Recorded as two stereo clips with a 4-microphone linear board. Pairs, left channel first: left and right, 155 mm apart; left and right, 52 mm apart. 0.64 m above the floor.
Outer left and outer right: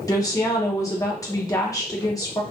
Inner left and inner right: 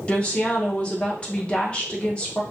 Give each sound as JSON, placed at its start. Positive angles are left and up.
{"t": 0.1, "sound": "a woman speaking", "side_deg": 20, "distance_m": 0.9}